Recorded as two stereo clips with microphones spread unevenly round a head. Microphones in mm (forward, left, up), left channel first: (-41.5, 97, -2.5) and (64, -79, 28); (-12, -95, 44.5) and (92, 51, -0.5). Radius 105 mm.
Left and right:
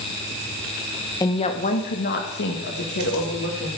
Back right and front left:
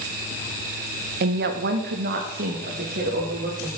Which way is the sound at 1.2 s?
55° left.